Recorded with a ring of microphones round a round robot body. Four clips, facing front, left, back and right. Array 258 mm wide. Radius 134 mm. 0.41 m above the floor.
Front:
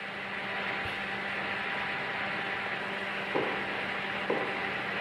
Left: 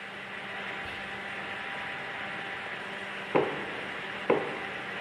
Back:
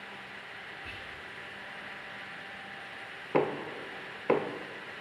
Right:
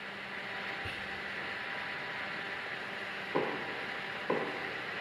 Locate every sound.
0.8 s whispering: 20° right, 1.6 m
3.3 s knocking: 115° left, 0.8 m